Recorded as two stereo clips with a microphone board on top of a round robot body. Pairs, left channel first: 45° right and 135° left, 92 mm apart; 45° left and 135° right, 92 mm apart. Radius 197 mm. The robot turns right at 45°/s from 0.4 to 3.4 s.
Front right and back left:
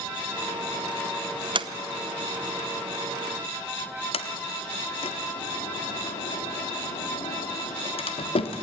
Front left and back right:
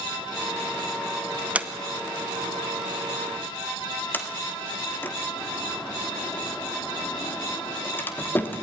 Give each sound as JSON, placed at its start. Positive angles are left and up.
{"t": 1.6, "sound": "a sliding door", "azimuth_deg": 150, "distance_m": 1.1}
{"t": 4.1, "sound": "a sliding door", "azimuth_deg": -25, "distance_m": 1.4}